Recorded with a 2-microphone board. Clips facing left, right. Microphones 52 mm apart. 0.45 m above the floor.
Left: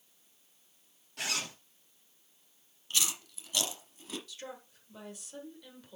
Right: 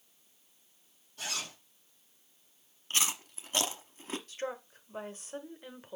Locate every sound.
1.2 s a zipper: 75° left (ahead or behind), 2 m
2.9 s chewing: 35° right (ahead or behind), 1.0 m
4.3 s a woman speaking: 40° right (ahead or behind), 1.4 m